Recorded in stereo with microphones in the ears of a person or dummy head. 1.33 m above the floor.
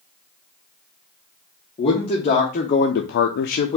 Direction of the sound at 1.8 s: 40° left (ahead or behind).